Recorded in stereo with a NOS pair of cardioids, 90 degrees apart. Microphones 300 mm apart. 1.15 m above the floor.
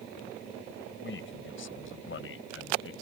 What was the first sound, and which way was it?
A man speaking, 40° left.